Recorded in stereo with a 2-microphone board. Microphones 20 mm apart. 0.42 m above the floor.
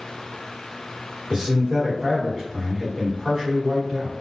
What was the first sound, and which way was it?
A man speaking, 35° right (ahead or behind).